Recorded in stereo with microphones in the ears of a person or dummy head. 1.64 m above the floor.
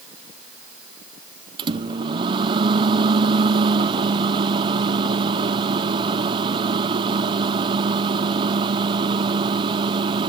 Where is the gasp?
No gasp in this recording.